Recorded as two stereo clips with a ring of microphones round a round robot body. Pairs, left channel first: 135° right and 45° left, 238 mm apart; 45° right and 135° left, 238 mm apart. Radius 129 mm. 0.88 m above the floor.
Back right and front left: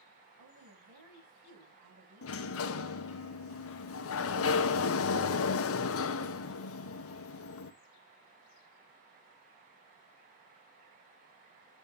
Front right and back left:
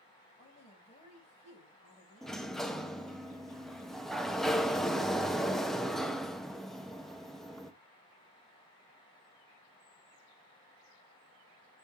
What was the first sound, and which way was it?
A woman speaking, 20° left.